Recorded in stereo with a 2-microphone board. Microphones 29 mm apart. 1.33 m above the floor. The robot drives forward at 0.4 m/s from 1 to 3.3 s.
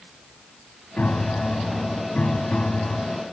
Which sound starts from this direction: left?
A piano, at 1.0 s.